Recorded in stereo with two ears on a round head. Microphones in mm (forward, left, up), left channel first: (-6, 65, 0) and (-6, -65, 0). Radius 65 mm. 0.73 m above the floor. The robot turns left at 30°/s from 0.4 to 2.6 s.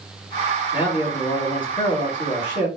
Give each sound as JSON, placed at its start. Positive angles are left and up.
{"t": 0.7, "sound": "a man speaking", "azimuth_deg": 125, "distance_m": 1.7}